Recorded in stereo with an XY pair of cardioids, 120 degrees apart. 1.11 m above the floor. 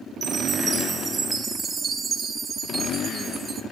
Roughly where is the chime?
Ahead right.